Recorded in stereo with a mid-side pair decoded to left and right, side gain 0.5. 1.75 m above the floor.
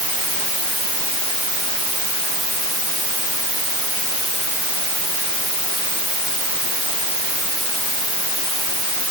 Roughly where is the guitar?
No guitar in this recording.